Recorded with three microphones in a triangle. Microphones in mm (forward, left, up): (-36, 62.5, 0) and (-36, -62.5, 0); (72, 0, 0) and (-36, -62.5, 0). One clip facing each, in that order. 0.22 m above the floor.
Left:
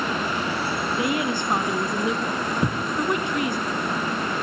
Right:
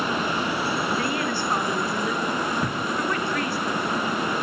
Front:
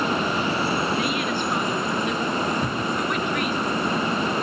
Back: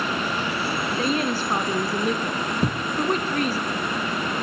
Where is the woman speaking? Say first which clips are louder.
Left 2 dB, back 1 dB; 160° left, 2.5 m.